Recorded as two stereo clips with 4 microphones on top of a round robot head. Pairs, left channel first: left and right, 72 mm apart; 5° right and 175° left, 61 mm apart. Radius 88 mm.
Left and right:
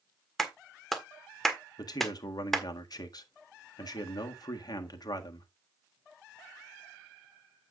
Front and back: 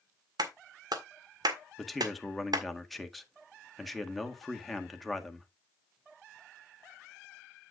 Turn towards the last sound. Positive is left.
turn(degrees=85)